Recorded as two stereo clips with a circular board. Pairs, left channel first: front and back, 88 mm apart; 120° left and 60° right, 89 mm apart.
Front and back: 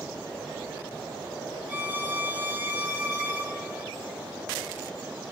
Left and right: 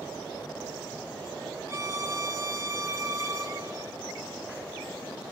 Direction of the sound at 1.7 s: 110° right.